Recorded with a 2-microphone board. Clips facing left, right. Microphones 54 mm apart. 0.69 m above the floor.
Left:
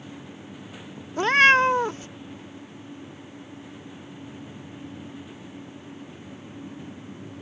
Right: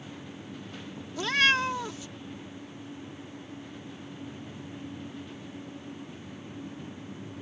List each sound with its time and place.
1.2 s a cat meowing: 40° left (ahead or behind)